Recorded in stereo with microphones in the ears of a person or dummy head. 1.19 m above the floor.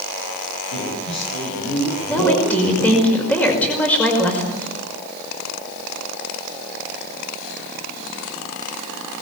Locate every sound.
0.7 s a man speaking: 85° left, 8.5 m; by 3.1 s 75° left (ahead or behind), 9 m
2.1 s a woman speaking: 10° left (ahead or behind), 5.5 m